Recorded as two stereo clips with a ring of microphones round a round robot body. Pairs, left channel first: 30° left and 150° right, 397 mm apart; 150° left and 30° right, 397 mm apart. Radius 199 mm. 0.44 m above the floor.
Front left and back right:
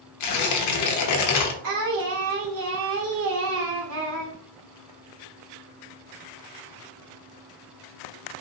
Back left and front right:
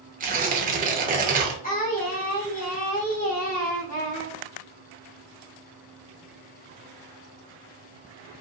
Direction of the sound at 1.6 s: 150° right.